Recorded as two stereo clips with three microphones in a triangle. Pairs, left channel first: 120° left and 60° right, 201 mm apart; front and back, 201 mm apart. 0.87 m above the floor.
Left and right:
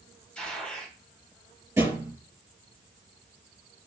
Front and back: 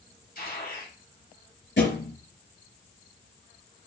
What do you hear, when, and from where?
0.3 s a gunshot: 35° left, 5.5 m
1.8 s a thud: 15° left, 6 m